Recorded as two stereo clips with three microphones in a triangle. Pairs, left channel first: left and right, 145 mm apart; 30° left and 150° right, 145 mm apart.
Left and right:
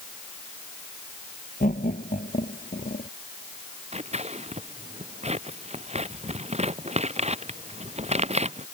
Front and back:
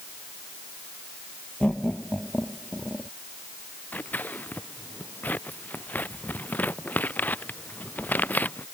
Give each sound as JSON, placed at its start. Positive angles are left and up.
{"t": 1.6, "sound": "laughter", "azimuth_deg": 110}
{"t": 3.9, "sound": "scissors", "azimuth_deg": -50}